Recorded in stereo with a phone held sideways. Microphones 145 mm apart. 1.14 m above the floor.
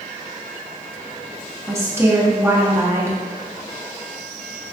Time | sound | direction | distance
1.7 | a woman speaking | 15° right (ahead or behind) | 1.0 m